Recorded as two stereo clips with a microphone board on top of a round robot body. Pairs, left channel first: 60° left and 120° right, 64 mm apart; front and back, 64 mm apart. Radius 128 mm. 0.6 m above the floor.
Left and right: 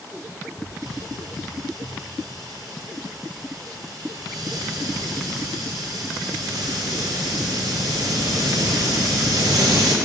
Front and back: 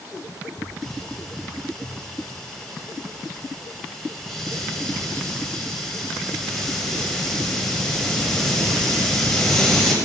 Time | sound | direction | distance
0.6 | a hiss | 85° right | 0.8 m